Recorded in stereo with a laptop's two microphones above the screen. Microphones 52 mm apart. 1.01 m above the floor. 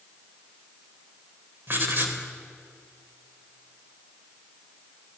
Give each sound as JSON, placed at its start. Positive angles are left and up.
{"t": 1.7, "sound": "writing", "side_deg": -45, "distance_m": 3.5}